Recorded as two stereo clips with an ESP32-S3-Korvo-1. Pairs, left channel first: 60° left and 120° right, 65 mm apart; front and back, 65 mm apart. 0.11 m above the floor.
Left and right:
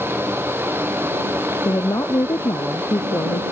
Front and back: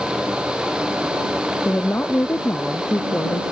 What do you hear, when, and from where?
1.6 s a woman speaking: 50° left